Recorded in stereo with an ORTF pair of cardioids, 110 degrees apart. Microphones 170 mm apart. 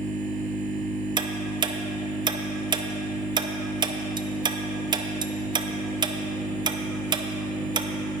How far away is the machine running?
About 1.8 m.